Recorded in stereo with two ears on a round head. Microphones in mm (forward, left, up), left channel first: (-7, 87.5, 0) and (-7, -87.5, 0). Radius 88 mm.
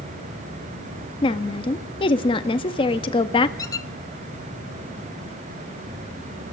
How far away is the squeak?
About 0.7 m.